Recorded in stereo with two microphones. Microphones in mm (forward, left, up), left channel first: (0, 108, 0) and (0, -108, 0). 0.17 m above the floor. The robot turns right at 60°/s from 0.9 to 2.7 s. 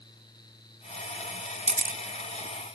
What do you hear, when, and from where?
1.7 s a camera shutter: 30° right (ahead or behind), 0.6 m; by 2.0 s 45° right (ahead or behind), 0.6 m